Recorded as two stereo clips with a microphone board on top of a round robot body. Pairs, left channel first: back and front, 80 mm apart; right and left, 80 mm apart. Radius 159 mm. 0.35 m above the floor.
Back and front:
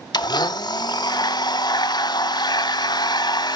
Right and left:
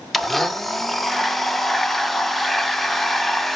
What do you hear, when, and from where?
0.1 s a blender: straight behind, 0.7 m